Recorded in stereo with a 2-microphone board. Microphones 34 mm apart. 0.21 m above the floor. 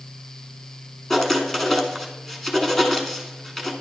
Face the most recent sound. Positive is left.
turn(degrees=10)  # may be behind; listen again after turning